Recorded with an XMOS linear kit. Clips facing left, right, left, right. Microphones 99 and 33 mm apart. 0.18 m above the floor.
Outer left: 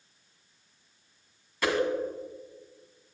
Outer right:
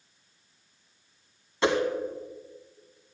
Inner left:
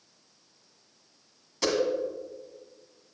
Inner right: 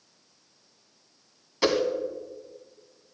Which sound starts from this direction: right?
A whoosh, at 1.6 s.